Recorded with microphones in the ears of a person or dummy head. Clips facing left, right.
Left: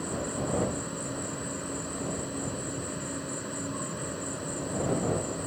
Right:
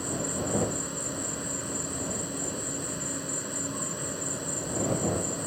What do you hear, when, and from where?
0.0 s an insect: centre (ahead or behind)